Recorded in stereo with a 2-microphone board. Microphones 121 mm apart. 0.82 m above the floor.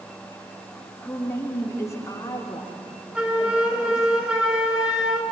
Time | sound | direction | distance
1.0 | a woman speaking | 20° left (ahead or behind) | 1.7 m
3.1 | a flute | 5° right (ahead or behind) | 2 m